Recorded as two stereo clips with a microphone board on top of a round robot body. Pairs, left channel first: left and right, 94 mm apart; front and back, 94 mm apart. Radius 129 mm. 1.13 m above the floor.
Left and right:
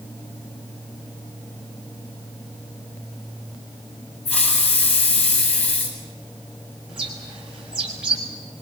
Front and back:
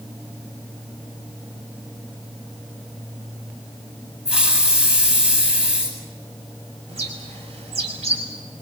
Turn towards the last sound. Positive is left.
turn(degrees=-175)